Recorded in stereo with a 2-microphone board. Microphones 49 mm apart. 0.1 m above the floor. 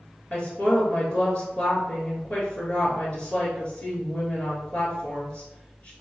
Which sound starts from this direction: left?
A woman speaking, at 0.3 s.